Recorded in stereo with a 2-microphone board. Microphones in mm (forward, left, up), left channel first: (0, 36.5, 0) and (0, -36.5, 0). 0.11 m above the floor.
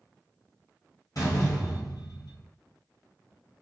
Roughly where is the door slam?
Left.